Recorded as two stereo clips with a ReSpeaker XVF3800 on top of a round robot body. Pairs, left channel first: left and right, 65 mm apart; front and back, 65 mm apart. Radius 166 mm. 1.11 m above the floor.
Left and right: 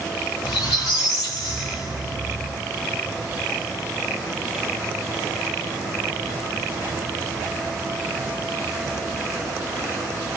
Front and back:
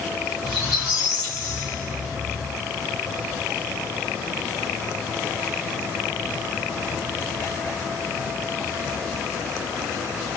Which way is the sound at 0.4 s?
95° left.